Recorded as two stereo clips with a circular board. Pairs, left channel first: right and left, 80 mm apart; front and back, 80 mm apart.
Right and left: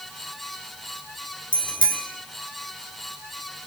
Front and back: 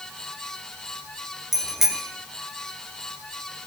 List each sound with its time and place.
1.5 s a bicycle bell: 95° right, 3 m